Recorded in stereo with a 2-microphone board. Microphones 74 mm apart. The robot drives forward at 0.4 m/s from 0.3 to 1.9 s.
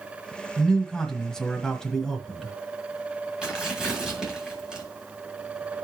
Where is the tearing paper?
10° right (ahead or behind), 4 m.